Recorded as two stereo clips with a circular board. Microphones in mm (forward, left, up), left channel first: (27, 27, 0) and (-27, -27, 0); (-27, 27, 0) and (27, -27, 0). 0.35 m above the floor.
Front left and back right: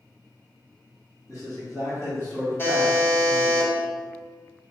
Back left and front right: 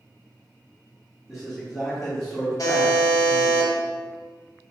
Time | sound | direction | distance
1.3 | a man speaking | 30° left | 1.9 m
2.6 | a buzzer | 105° left | 0.6 m